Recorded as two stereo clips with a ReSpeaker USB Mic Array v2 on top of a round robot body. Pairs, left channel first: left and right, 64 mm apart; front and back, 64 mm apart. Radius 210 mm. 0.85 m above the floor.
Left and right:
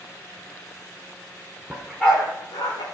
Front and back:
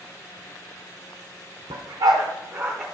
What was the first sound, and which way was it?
A dog barking, 175° right.